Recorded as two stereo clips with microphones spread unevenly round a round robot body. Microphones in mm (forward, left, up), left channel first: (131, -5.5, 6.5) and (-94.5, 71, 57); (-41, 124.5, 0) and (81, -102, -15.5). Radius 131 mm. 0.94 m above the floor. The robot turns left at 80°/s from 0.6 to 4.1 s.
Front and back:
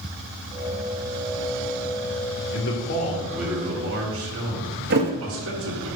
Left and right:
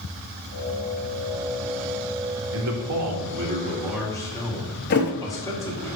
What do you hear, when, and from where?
2.5 s a man speaking: 35° right, 1.9 m; by 5.9 s 160° right, 1.9 m
4.9 s a thud: 155° left, 1.4 m